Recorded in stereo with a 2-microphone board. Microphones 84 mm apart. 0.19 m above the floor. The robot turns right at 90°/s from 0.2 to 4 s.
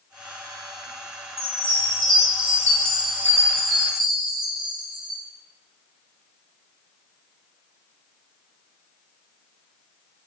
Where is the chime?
40° left, 1.1 m; by 5.2 s 85° right, 1.1 m.